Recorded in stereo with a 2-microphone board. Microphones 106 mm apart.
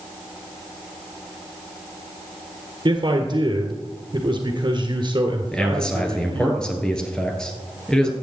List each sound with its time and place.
2.9 s a man speaking: 45° right (ahead or behind), 1.6 m
5.5 s a man speaking: 5° left (ahead or behind), 2.0 m